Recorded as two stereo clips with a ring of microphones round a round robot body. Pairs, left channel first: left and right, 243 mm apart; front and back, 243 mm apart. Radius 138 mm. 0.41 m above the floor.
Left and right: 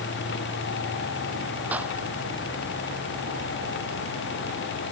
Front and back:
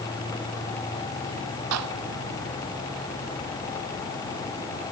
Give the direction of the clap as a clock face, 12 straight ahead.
6 o'clock.